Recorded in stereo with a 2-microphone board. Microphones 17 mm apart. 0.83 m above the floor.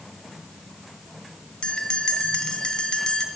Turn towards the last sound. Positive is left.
turn(degrees=60)  # may be behind; listen again after turning